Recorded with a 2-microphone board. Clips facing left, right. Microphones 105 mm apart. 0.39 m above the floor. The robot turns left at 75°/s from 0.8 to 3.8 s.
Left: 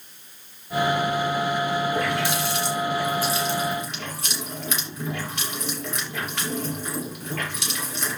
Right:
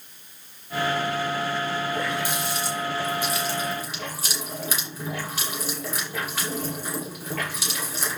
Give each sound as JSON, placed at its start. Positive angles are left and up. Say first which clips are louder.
{"t": 1.9, "sound": "a running tap", "louder": "left 3 dB", "side_deg": 45, "distance_m": 7.5}